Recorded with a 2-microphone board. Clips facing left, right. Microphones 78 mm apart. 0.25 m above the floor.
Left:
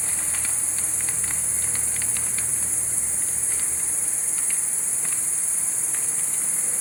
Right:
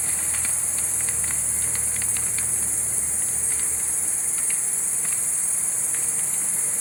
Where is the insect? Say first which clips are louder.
Even; centre (ahead or behind), 1.3 m.